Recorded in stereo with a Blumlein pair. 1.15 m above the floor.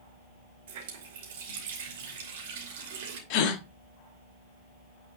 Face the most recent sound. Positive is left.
turn(degrees=40)